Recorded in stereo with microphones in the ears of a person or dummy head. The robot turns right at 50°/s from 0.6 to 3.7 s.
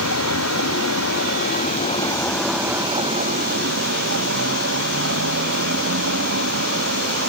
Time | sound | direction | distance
0.0 | a vehicle | 90° left | ?